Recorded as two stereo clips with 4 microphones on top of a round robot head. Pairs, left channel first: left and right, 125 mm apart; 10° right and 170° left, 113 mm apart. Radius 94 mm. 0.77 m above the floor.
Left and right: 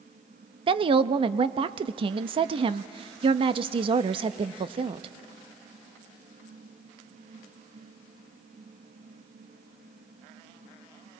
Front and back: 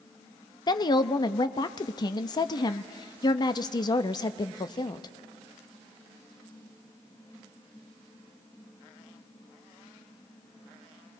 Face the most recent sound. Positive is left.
turn(degrees=-55)